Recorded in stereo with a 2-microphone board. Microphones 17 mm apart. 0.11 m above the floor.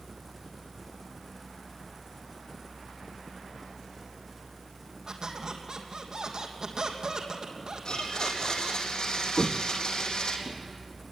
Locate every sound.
5.1 s a squeak: 50° right (ahead or behind), 3 m
7.8 s a blender: 65° left (ahead or behind), 4 m
9.4 s footsteps: 5° left (ahead or behind), 0.5 m; by 10.6 s 90° left, 1.7 m